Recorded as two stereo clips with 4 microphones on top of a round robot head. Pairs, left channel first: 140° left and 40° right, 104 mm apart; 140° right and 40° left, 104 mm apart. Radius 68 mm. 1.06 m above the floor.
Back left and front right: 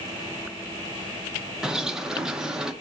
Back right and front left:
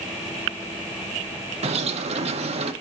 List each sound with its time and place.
1.6 s a bird: 40° left, 0.9 m